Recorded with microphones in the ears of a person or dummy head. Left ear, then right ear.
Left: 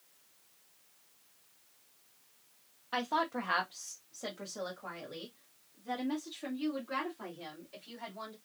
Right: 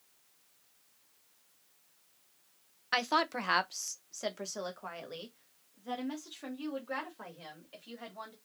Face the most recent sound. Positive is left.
turn(degrees=-50)  # may be behind; listen again after turning